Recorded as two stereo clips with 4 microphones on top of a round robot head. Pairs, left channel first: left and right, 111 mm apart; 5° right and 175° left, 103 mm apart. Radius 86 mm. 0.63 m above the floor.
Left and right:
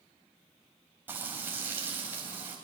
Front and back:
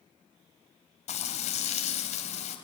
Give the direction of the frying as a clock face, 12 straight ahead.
12 o'clock.